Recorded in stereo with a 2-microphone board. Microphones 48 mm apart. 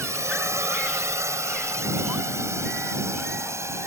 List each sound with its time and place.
0.0 s a drone: 85° right; by 3.9 s 75° right (ahead or behind)